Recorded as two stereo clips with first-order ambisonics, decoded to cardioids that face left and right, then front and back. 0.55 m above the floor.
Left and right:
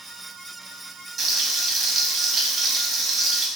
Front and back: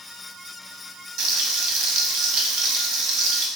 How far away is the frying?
About 0.7 m.